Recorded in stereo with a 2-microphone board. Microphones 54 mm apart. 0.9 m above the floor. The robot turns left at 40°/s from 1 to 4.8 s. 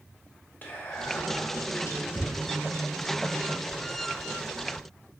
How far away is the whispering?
About 0.7 m.